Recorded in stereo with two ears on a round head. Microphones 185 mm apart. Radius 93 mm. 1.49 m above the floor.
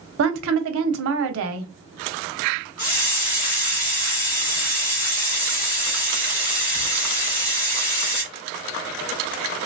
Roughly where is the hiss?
Left.